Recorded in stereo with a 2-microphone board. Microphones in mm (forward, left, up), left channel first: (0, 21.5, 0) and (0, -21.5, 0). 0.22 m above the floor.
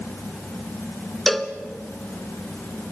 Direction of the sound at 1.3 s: 5° left (ahead or behind).